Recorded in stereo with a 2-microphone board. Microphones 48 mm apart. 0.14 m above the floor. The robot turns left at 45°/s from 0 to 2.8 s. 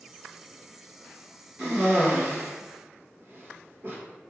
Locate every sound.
1.6 s a cough: 10° right (ahead or behind), 1.9 m; by 4.0 s 45° right (ahead or behind), 1.9 m